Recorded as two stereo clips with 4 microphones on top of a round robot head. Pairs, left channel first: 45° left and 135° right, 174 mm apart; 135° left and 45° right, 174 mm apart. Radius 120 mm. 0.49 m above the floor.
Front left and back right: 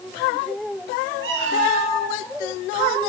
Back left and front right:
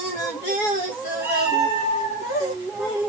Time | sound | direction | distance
1.2 | a cat meowing | 120° right | 1.6 m